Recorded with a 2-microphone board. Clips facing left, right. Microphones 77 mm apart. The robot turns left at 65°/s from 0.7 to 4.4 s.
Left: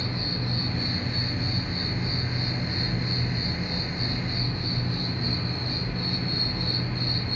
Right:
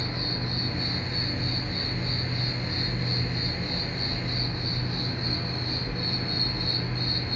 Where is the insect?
130° right, 1.0 m; by 7.4 s 10° right, 1.0 m.